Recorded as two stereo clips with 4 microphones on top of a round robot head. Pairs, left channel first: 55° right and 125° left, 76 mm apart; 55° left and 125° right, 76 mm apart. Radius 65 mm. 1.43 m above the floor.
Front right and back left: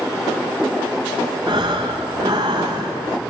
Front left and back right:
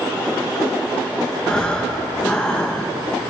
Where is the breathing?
130° left, 0.6 m.